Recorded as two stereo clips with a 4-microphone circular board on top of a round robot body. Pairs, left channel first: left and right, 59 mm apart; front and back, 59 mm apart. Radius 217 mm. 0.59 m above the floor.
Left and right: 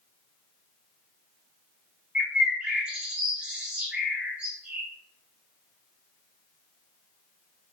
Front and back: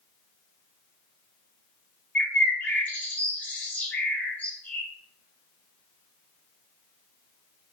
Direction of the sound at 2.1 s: 35° right.